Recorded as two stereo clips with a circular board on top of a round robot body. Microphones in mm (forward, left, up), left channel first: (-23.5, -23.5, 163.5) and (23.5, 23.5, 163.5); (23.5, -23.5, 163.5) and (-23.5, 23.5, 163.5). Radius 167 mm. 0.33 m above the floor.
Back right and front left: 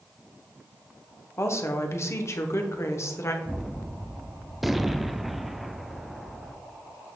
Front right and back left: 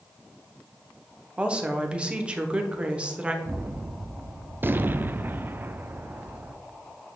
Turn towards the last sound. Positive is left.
turn(degrees=130)